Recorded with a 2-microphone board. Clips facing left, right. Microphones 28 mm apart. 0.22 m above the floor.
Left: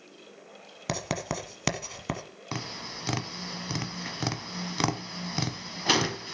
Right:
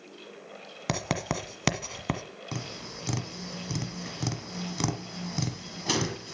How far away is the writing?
About 1.3 m.